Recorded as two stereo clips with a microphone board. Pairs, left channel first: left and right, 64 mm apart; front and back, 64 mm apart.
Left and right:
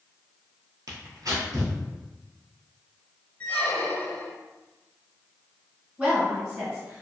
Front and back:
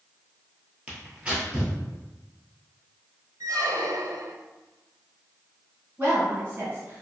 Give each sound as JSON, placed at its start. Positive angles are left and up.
{"t": 0.9, "sound": "tearing paper", "azimuth_deg": -110, "distance_m": 1.2}
{"t": 3.4, "sound": "a squeak", "azimuth_deg": 160, "distance_m": 0.5}
{"t": 6.0, "sound": "a woman speaking", "azimuth_deg": -145, "distance_m": 1.6}